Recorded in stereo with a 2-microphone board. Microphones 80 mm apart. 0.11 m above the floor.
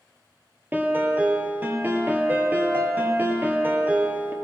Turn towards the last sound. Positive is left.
turn(degrees=-25)  # may be behind; listen again after turning